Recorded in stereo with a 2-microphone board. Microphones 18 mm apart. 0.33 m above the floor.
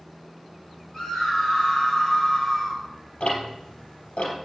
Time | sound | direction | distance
0.9 | a scream | 25° left (ahead or behind) | 5 m
3.2 | ticking | 85° left | 3 m